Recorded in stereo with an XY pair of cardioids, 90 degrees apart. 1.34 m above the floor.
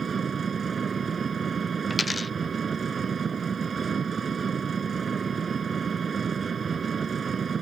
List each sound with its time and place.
0.0 s an engine running: 45° right
1.9 s a dropped coin: 20° left